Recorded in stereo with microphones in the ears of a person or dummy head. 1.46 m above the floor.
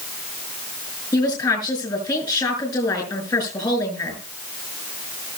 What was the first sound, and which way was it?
A woman speaking, 25° left (ahead or behind).